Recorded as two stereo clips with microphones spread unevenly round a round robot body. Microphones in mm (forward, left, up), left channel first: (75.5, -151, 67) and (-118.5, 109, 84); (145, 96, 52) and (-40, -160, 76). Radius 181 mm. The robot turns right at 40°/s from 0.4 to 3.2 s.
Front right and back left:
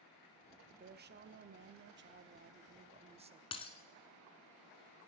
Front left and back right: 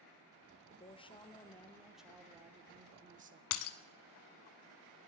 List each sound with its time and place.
0.7 s a woman speaking: 85° left, 0.8 m; by 3.4 s 175° right, 0.8 m
3.5 s breaking glass: 25° left, 0.6 m